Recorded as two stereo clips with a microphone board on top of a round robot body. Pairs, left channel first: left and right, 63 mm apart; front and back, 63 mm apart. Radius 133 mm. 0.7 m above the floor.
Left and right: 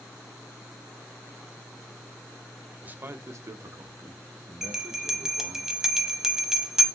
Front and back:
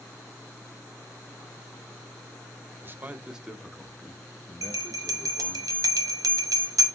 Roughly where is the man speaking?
Behind right.